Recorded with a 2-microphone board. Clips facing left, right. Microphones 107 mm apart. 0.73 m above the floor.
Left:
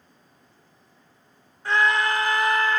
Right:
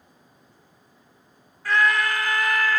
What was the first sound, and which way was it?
A scream, 25° left (ahead or behind).